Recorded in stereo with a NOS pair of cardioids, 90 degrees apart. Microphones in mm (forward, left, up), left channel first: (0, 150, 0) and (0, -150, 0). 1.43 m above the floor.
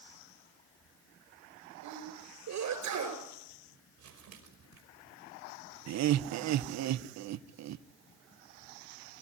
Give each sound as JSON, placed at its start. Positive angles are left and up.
{"t": 1.8, "sound": "a sneeze", "azimuth_deg": -70, "distance_m": 8.0}
{"t": 4.0, "sound": "crumpling", "azimuth_deg": -65, "distance_m": 5.5}
{"t": 5.9, "sound": "laughter", "azimuth_deg": -65, "distance_m": 0.8}